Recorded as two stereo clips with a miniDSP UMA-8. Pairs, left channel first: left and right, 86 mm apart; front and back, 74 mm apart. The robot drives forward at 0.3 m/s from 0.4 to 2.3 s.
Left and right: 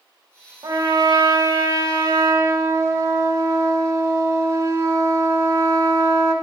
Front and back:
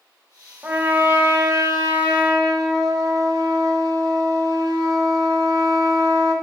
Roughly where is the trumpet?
Behind right.